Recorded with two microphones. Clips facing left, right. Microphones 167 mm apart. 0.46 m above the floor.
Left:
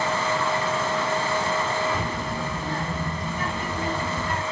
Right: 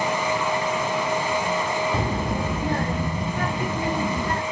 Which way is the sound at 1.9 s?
30° right (ahead or behind).